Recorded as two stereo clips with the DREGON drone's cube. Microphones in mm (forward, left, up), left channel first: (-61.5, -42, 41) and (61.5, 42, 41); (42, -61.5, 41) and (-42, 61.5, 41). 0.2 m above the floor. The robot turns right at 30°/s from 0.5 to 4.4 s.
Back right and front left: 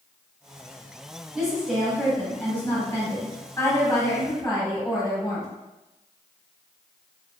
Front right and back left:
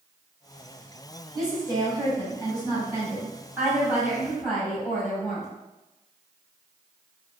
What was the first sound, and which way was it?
A woman speaking, 115° left.